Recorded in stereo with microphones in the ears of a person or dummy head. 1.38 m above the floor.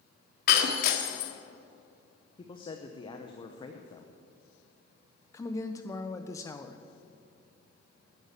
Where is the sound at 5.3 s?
20° left (ahead or behind), 0.7 m.